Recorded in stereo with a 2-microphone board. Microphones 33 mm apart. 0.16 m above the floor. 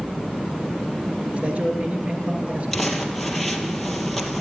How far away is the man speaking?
About 2.5 m.